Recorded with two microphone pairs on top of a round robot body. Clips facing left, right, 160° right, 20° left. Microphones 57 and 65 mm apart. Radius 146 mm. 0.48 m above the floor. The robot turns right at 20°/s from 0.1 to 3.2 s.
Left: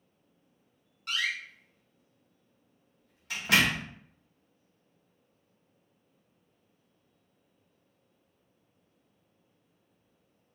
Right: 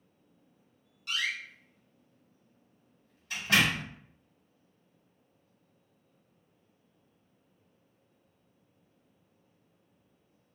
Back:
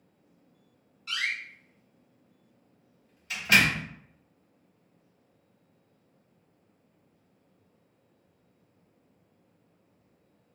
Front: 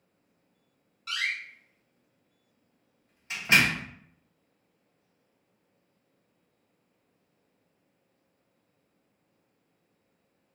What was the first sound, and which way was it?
A door slam, 45° left.